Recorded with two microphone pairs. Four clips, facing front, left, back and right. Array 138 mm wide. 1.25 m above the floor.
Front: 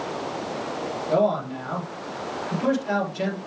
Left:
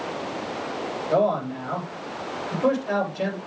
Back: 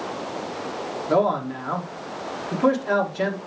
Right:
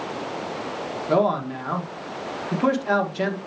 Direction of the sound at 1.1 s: 115° right.